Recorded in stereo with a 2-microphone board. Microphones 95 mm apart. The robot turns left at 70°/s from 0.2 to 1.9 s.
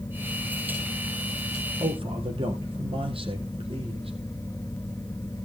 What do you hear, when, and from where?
1.8 s a man speaking: 75° right (ahead or behind), 4.5 m